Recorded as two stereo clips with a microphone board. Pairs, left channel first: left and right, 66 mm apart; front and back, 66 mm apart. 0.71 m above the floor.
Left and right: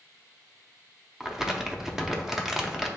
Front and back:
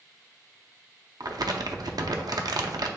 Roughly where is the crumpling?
Behind.